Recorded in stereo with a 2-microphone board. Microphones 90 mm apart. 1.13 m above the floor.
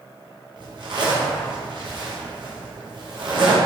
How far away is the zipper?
About 0.7 m.